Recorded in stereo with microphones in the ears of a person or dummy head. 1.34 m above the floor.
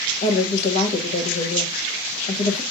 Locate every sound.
0.2 s a woman speaking: 45° left (ahead or behind), 1.2 m